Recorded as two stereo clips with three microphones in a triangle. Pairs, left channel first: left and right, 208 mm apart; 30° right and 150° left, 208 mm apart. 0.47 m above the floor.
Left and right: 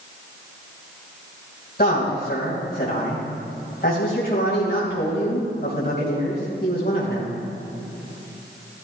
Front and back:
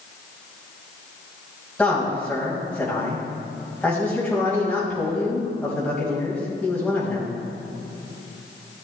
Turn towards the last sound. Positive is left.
turn(degrees=55)